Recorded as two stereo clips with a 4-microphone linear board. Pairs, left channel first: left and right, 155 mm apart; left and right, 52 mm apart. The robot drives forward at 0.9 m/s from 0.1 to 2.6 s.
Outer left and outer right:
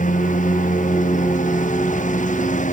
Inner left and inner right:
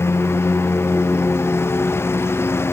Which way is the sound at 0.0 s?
55° left (ahead or behind).